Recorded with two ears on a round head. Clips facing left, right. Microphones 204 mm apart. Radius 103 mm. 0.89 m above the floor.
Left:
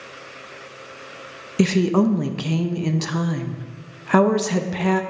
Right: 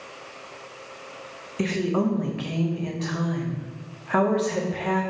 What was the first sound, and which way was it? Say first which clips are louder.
A woman speaking: left 6 dB; 50° left (ahead or behind).